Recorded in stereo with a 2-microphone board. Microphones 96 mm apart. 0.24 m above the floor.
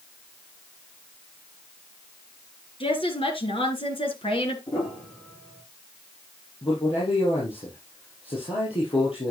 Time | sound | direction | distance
2.8 | a woman speaking | 70° left (ahead or behind) | 4 m
4.7 | a piano | 70° left (ahead or behind) | 9 m
6.6 | a man speaking | 75° left (ahead or behind) | 5 m